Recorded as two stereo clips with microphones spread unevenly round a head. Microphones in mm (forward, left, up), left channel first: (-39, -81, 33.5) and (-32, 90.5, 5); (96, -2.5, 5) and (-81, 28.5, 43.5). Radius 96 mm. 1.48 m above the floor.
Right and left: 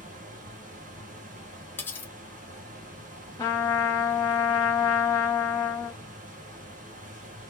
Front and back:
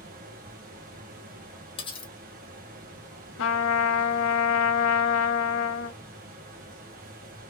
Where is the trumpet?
15° right, 0.5 m.